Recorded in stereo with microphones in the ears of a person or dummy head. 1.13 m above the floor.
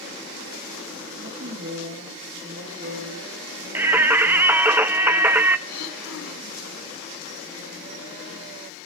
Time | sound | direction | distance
1.2 | a woman speaking | 55° right (ahead or behind) | 9.5 m
3.8 | singing | 10° right (ahead or behind) | 0.7 m
5.7 | throat clearing | 85° left | 4.5 m